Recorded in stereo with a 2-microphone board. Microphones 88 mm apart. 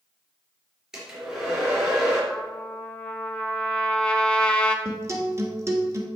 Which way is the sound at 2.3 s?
10° left (ahead or behind).